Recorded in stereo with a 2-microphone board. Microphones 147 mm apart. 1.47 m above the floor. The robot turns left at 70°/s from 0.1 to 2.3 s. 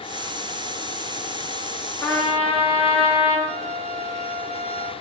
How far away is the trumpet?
About 2.5 m.